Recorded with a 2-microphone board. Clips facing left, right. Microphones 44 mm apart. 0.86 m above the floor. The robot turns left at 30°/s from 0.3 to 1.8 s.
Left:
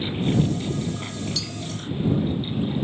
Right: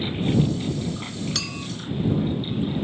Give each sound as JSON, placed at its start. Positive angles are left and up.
{"t": 1.4, "sound": "a clink", "side_deg": -75}